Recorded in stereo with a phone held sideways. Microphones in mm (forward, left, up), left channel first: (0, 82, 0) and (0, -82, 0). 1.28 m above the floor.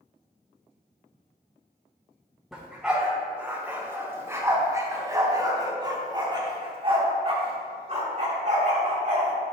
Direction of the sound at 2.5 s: Centre (ahead or behind).